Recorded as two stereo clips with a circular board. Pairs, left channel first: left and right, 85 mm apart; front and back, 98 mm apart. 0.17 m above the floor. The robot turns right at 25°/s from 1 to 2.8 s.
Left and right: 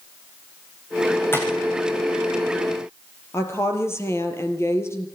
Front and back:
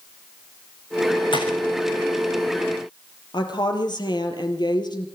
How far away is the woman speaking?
About 4 m.